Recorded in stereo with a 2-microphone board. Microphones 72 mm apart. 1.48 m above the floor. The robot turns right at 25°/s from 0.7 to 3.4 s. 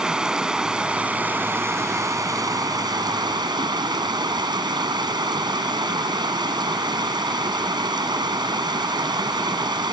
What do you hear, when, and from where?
0.0 s running water: 170° right; by 9.9 s 100° right